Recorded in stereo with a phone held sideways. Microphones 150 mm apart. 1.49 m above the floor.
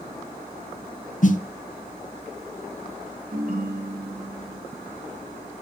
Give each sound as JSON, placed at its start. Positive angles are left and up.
{"t": 1.2, "sound": "a snare drum", "side_deg": 60, "distance_m": 1.3}
{"t": 3.3, "sound": "a ringtone", "side_deg": -70, "distance_m": 3.0}